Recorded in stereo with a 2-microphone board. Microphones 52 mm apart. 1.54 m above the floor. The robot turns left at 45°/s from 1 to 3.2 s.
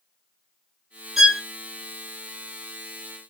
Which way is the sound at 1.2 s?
5° right (ahead or behind).